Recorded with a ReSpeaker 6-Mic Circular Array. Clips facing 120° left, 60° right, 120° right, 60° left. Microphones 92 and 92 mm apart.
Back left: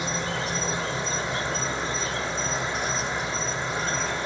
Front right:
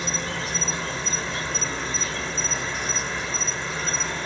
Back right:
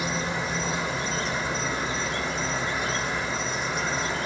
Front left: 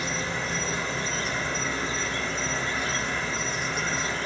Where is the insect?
Straight behind, 1.4 m.